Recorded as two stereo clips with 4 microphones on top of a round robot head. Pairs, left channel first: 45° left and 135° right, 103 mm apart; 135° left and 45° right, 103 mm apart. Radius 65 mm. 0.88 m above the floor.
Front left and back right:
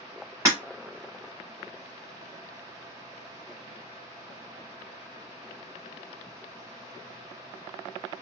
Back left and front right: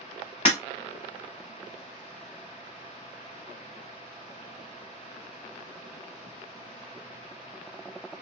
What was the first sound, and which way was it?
Breaking glass, 170° left.